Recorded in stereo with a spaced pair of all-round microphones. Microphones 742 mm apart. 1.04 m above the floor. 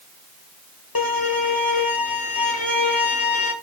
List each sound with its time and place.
0.9 s a violin: 30° left (ahead or behind), 2.5 m